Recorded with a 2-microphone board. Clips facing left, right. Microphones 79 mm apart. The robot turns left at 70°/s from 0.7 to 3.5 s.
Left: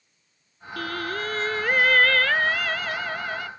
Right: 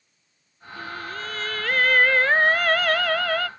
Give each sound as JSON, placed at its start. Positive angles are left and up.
{"t": 0.8, "sound": "singing", "azimuth_deg": 80}